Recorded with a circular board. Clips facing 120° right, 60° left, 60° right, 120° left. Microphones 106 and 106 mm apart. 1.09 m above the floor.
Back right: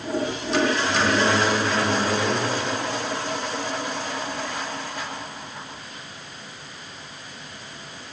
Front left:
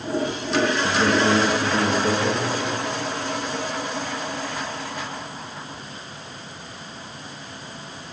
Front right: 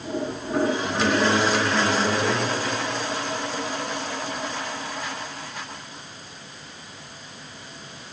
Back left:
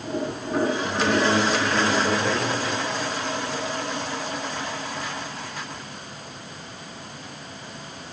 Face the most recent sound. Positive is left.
turn(degrees=15)